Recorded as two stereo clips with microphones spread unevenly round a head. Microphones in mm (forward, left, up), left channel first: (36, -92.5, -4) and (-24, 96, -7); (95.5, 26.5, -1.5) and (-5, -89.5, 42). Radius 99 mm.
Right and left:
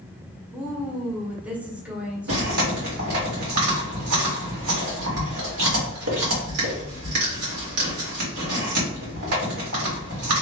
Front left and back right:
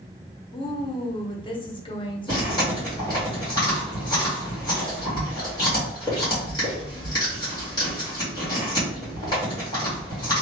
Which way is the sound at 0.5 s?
25° left.